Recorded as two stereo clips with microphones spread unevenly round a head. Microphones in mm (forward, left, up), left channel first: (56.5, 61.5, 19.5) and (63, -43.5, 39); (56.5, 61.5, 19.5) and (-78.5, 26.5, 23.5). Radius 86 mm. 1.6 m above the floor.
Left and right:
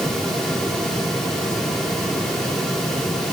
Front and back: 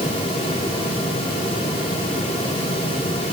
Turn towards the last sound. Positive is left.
No sound to turn to.